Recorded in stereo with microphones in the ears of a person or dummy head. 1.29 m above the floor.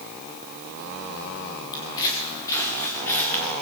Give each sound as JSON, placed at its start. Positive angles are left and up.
{"t": 1.7, "sound": "footsteps", "side_deg": 25, "distance_m": 6.0}